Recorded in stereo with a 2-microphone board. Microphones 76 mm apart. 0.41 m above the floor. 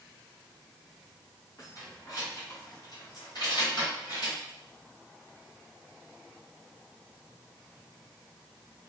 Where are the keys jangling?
45° left (ahead or behind), 2 m; by 4.4 s 65° left (ahead or behind), 1.5 m.